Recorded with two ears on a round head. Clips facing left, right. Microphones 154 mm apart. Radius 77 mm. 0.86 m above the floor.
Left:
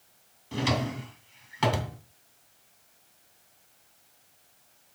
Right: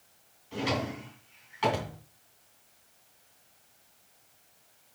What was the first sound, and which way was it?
A drawer, 60° left (ahead or behind).